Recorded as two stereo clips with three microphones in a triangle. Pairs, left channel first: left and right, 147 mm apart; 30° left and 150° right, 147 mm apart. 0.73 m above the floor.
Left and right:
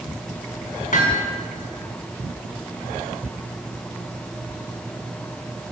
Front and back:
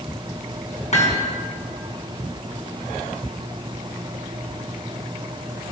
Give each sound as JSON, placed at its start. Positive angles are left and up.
{"t": 0.9, "sound": "hammering", "azimuth_deg": 65, "distance_m": 4.5}